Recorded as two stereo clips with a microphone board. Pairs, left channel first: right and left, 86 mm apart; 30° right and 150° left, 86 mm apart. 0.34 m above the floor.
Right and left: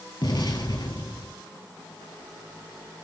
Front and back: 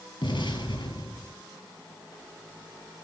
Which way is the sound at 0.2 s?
60° right.